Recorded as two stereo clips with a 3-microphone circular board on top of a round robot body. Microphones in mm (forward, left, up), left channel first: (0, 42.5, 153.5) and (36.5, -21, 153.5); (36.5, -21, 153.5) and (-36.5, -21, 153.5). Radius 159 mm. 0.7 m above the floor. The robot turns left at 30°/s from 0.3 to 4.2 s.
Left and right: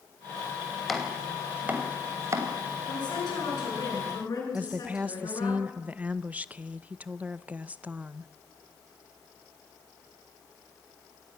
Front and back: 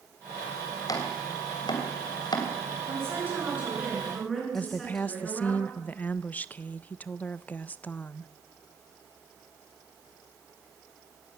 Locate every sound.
0.9 s chopping: 30° left, 3 m; by 2.5 s 15° right, 3 m
2.9 s a woman speaking: 125° left, 8.5 m; by 5.5 s 85° left, 8.5 m
4.5 s a woman speaking: 25° right, 0.7 m